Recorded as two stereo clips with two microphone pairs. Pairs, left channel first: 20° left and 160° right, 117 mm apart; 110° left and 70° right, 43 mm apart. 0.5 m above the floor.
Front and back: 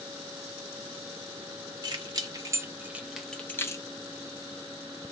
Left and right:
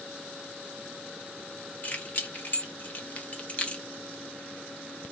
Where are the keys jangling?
160° left, 1.1 m; by 3.9 s 60° left, 0.7 m.